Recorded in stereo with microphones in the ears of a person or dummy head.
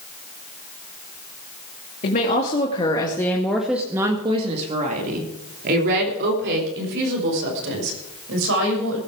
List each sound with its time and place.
2.0 s a woman speaking: 45° left (ahead or behind), 2.5 m; by 9.0 s 75° right (ahead or behind), 6.5 m